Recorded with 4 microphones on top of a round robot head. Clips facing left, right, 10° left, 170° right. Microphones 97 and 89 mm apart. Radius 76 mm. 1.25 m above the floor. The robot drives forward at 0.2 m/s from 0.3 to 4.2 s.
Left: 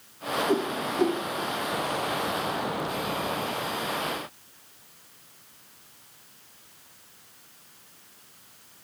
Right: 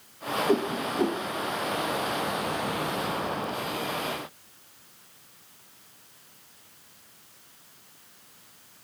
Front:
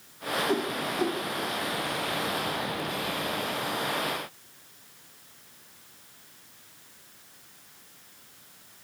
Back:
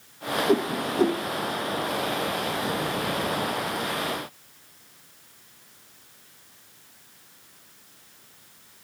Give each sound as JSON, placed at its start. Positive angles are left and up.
{"t": 0.5, "sound": "a whoosh", "azimuth_deg": -155, "distance_m": 0.6}